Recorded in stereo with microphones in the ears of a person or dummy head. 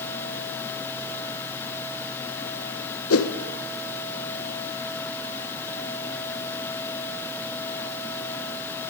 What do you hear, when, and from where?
3.1 s a whoosh: 75° left (ahead or behind), 1.6 m